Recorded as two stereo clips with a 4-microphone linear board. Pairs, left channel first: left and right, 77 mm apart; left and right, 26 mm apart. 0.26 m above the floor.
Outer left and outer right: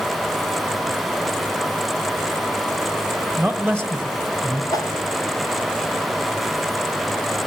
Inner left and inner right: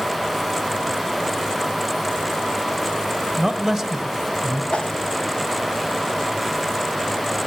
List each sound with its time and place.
3.4 s a man speaking: 5° left (ahead or behind), 1.2 m
4.7 s a whoosh: 55° left (ahead or behind), 0.6 m